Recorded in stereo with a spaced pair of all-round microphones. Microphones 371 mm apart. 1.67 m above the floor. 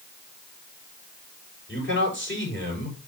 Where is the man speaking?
30° left (ahead or behind), 7.5 m.